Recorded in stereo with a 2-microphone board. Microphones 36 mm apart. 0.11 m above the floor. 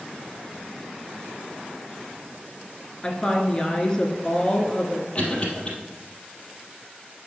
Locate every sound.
3.0 s a woman speaking: 25° left (ahead or behind), 1.2 m
5.2 s a cough: 30° left (ahead or behind), 3 m